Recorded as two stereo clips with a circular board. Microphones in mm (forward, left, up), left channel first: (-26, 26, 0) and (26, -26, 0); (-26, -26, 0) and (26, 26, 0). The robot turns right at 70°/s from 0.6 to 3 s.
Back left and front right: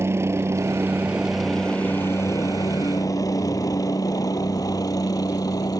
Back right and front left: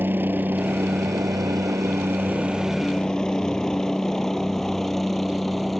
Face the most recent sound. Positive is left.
turn(degrees=135)